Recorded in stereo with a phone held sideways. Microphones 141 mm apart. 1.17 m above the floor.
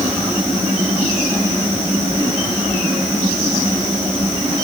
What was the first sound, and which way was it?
Only background noise.